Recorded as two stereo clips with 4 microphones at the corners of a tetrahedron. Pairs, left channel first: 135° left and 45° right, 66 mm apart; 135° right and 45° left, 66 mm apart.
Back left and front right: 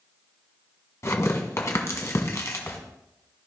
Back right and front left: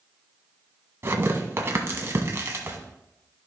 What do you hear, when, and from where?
1.0 s tearing paper: 95° left, 1.5 m